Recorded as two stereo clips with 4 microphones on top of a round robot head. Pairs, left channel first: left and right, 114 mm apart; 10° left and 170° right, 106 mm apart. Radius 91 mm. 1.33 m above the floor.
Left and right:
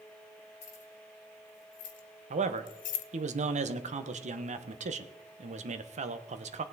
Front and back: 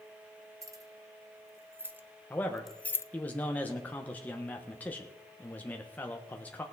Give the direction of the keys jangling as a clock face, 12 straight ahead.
8 o'clock.